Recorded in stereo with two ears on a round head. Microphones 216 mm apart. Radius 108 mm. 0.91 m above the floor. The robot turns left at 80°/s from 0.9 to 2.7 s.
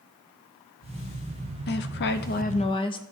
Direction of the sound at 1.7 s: 110° left.